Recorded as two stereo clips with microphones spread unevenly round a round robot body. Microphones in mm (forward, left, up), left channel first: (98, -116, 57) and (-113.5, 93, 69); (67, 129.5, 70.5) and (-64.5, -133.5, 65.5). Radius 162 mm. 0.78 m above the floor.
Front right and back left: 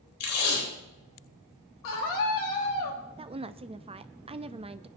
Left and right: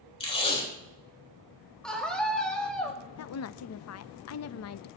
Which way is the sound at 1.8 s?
25° right.